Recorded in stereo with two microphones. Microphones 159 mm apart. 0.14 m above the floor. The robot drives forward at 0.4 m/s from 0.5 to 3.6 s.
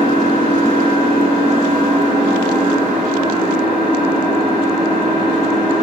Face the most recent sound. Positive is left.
turn(degrees=-45)  # may be behind; listen again after turning